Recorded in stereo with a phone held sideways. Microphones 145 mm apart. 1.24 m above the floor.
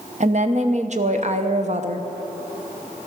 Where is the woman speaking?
55° right (ahead or behind), 0.9 m.